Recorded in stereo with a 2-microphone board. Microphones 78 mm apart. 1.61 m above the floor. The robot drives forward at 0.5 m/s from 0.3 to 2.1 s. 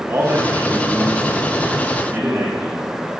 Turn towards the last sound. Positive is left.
turn(degrees=-20)  # may be behind; listen again after turning